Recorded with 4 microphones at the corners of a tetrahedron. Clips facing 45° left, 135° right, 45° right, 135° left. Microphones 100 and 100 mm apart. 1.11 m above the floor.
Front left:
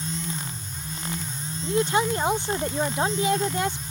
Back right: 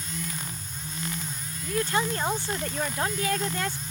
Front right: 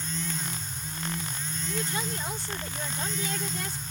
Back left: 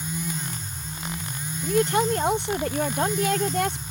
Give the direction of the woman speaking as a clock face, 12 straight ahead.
8 o'clock.